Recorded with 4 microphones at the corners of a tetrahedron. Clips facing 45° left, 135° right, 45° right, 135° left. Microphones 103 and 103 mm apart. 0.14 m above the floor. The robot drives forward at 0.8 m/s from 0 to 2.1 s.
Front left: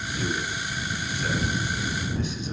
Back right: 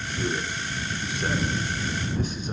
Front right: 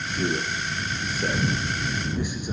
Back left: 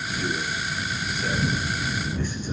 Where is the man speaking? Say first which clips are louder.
Back right 1 dB, front right 3 dB; 50° right, 2 m; by 2.5 s 115° right, 1.9 m.